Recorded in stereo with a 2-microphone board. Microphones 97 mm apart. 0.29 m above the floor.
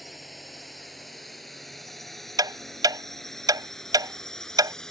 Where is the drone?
Centre (ahead or behind); by 4.9 s 5° left (ahead or behind).